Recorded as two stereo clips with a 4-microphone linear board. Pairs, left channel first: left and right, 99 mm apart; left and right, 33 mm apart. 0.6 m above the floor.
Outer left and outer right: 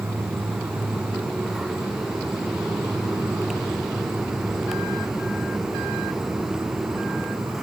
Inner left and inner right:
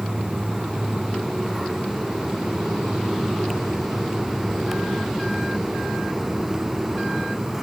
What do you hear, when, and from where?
0.0 s an insect: 25° right (ahead or behind), 0.8 m